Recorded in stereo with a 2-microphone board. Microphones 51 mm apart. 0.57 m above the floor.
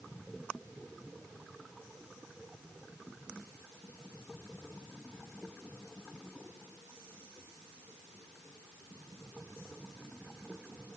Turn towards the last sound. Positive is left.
No sound to turn to.